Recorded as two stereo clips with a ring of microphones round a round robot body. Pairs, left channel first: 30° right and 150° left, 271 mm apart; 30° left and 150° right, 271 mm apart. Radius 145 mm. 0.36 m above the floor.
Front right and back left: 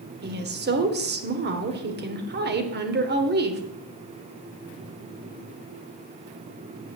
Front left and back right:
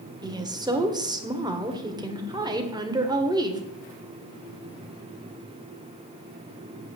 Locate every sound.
0.2 s a woman speaking: 145° left, 1.6 m